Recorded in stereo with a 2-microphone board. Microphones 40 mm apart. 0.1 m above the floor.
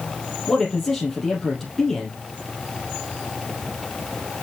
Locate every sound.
0.5 s a man speaking: 5° left (ahead or behind), 3 m